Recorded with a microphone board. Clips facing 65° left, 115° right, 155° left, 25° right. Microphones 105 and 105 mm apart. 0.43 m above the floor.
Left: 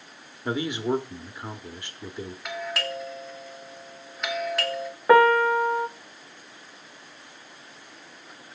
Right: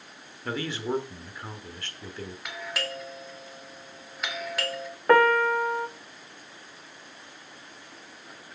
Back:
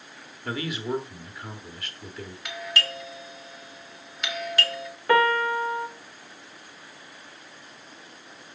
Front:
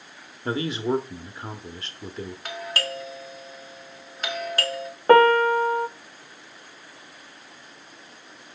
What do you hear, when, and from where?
0.5 s a man speaking: 10° left, 1.0 m
2.5 s a doorbell: 25° right, 1.6 m
5.1 s a piano: 15° right, 0.5 m